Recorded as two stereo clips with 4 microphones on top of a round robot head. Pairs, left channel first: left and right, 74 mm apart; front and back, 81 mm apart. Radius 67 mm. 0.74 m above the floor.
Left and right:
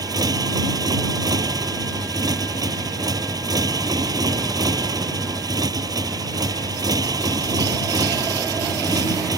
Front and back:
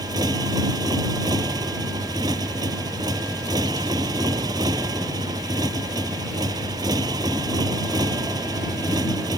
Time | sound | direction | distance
0.0 | a motorcycle | 125° right | ?